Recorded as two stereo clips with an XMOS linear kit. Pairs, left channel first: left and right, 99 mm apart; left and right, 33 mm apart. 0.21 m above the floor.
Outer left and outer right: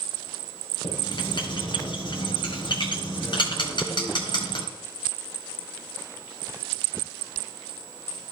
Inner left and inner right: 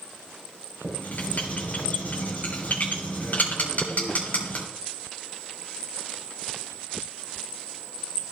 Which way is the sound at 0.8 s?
55° left (ahead or behind).